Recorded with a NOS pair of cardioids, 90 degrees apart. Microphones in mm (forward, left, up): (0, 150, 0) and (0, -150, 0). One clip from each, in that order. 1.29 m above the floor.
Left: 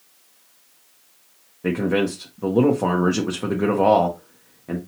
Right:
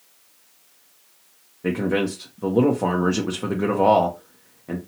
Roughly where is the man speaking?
Ahead.